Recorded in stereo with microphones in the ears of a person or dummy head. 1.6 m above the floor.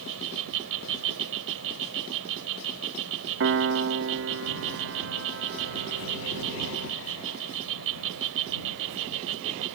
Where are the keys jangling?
No keys jangling in this recording.